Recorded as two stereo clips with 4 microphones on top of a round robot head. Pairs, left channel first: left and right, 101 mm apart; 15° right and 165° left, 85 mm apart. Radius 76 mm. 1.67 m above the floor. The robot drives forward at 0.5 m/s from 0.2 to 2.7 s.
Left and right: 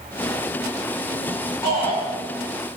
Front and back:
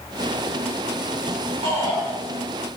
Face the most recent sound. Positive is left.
turn(degrees=160)